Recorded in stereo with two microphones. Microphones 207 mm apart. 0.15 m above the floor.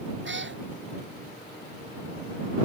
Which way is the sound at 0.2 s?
65° right (ahead or behind).